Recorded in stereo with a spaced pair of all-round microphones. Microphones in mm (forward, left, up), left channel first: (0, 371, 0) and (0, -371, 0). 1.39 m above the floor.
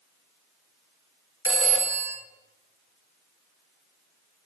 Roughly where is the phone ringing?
Centre.